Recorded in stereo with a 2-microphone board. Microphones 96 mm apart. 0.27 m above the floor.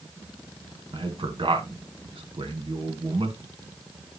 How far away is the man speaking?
About 2 m.